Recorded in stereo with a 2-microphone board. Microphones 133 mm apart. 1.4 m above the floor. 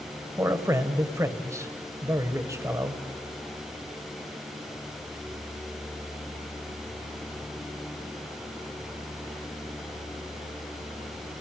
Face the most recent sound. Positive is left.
turn(degrees=-20)  # may be behind; listen again after turning